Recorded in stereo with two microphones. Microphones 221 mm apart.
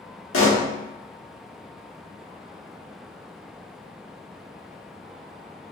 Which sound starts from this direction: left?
A pop, at 0.3 s.